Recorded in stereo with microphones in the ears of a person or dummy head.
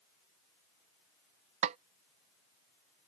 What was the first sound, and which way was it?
A snare drum, 40° right (ahead or behind).